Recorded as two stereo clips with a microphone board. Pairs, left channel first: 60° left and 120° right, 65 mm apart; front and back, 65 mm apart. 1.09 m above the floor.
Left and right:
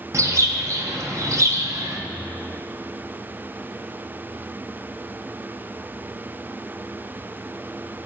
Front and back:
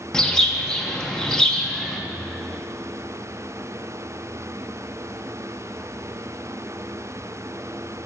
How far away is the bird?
About 1.1 m.